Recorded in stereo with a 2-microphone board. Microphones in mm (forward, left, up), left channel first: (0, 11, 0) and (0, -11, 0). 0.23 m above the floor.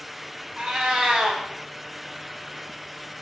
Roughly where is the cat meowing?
Right.